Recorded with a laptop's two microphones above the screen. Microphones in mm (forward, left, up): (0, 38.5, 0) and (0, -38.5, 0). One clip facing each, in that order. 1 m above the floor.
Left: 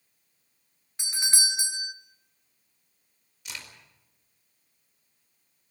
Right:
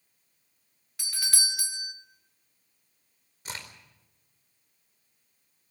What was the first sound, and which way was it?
A doorbell, 25° left (ahead or behind).